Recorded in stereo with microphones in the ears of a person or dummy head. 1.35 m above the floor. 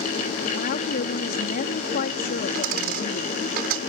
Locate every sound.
0.6 s a woman speaking: 50° left (ahead or behind)
2.5 s a dropped coin: 50° right (ahead or behind)